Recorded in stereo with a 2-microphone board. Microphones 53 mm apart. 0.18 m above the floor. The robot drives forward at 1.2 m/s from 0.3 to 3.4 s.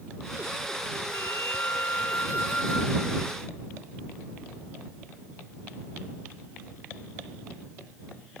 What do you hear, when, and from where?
1.1 s a flute: 55° left (ahead or behind); by 3.3 s 25° left (ahead or behind)